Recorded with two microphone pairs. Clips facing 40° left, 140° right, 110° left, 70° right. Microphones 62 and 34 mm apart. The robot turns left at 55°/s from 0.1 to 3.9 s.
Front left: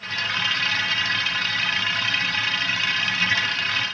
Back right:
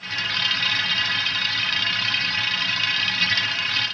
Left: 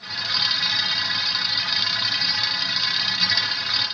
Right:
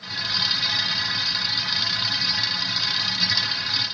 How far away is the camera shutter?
No camera shutter in this recording.